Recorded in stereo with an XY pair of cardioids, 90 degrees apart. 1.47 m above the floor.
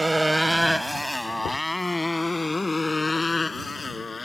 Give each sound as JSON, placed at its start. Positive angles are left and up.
{"t": 0.0, "sound": "a motorcycle", "azimuth_deg": -15}
{"t": 1.4, "sound": "knocking", "azimuth_deg": 70}